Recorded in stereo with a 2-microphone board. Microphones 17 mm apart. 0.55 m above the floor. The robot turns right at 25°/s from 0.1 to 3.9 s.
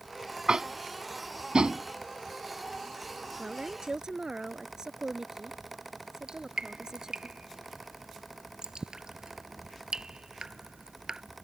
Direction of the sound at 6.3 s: 50° right (ahead or behind).